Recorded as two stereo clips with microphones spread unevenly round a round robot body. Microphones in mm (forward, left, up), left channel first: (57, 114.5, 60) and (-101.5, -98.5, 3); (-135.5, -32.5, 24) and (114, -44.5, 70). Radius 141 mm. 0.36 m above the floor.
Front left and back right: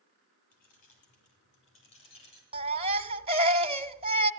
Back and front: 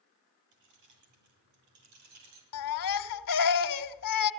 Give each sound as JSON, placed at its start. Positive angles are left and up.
{"t": 0.5, "sound": "keys jangling", "azimuth_deg": -10, "distance_m": 8.0}
{"t": 2.5, "sound": "a baby crying", "azimuth_deg": 170, "distance_m": 1.4}